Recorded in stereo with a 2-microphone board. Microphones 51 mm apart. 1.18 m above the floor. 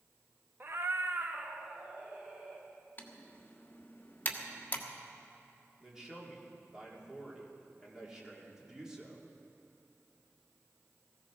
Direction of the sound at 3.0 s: 35° left (ahead or behind).